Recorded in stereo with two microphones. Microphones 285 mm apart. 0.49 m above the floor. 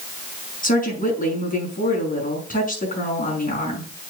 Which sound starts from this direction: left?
A woman speaking, at 0.6 s.